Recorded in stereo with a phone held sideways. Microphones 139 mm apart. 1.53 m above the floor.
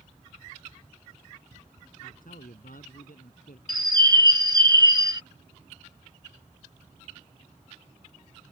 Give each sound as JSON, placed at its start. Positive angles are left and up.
{"t": 2.0, "sound": "a man speaking", "side_deg": 85}
{"t": 3.7, "sound": "a bird", "side_deg": -30}